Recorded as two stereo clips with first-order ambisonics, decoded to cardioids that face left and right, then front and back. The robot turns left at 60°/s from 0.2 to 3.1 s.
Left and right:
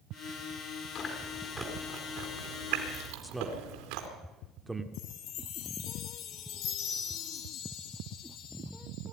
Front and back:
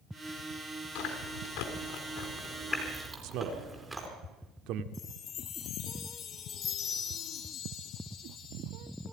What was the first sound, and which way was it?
Chewing, 30° left.